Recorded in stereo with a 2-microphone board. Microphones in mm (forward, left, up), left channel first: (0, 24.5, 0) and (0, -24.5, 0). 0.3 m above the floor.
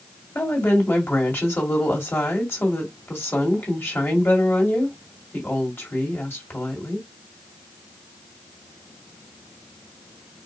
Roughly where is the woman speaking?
Left.